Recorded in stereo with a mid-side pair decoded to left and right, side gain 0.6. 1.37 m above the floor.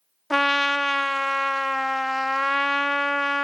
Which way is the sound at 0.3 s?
5° left.